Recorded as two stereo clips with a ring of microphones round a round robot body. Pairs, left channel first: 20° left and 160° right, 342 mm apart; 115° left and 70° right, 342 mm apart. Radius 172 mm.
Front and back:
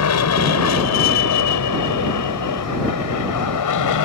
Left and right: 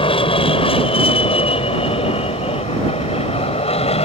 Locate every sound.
0.0 s an aircraft: 45° left; by 4.1 s 40° left